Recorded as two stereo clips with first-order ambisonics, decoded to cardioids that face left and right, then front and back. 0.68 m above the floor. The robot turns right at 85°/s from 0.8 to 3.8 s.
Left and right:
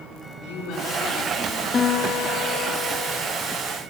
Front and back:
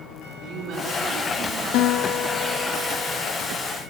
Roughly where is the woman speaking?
Behind left.